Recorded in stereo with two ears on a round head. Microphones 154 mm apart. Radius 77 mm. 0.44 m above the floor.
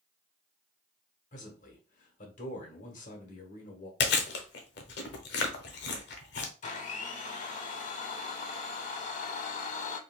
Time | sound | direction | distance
1.3 | a man speaking | 50° left (ahead or behind) | 1.2 m
4.0 | chewing | 65° left (ahead or behind) | 0.8 m
6.6 | a blender | 45° left (ahead or behind) | 0.7 m